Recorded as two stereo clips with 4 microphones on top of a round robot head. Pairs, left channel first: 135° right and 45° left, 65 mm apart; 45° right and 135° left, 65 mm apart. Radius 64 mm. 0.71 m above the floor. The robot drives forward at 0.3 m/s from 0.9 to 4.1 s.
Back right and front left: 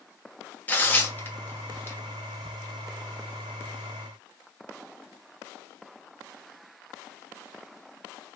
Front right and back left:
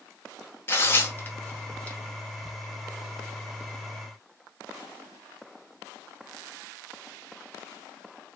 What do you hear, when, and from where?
0.7 s tearing paper: 85° right, 1.1 m; by 2.0 s 110° right, 1.1 m